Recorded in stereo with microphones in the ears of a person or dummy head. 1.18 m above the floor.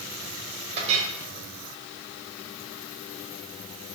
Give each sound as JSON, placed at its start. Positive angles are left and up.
{"t": 0.8, "sound": "a clink", "side_deg": -35, "distance_m": 4.0}